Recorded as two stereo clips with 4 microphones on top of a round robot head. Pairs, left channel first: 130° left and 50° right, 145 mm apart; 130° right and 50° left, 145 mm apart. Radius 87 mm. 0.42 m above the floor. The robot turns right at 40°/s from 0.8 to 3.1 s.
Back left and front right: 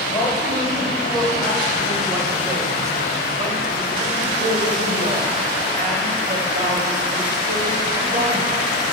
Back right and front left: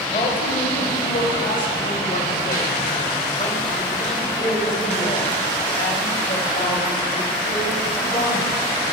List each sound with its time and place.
0.1 s a man speaking: 165° right, 2 m; by 8.5 s 70° right, 2 m